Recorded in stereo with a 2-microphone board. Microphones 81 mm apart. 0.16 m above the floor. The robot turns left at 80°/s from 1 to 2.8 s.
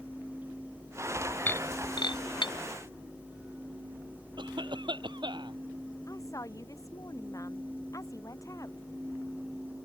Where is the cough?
70° right (ahead or behind).